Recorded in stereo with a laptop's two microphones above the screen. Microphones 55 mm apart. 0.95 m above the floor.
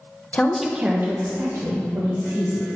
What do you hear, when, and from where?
0.3 s a woman speaking: 25° left (ahead or behind), 0.7 m; by 2.7 s 70° right (ahead or behind), 2.5 m